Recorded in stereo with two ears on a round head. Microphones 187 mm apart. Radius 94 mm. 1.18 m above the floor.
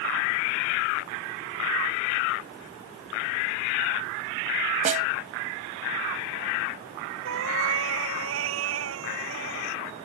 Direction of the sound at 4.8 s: 35° right (ahead or behind).